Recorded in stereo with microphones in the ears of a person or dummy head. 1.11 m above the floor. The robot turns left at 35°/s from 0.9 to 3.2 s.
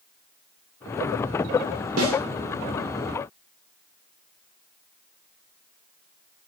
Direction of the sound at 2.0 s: 75° right (ahead or behind).